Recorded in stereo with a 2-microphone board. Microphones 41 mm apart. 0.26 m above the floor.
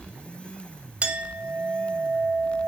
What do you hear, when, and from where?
1.0 s a clink: 30° right (ahead or behind), 0.6 m